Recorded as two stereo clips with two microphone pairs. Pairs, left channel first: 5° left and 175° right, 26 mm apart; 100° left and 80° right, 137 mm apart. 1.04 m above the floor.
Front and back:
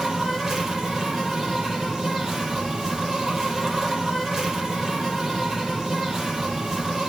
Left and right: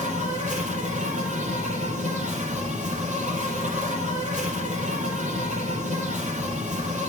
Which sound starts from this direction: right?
An insect, at 0.0 s.